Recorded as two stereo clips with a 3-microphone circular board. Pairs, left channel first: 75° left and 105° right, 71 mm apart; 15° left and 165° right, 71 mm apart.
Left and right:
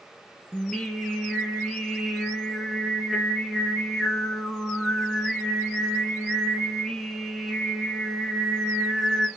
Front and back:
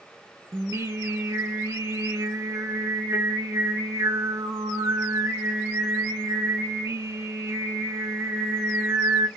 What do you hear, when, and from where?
0.5 s singing: 160° left, 0.8 m